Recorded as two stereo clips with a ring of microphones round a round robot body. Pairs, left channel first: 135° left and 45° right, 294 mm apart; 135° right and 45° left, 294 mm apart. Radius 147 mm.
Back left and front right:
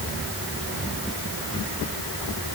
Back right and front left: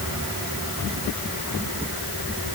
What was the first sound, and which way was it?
Only background noise.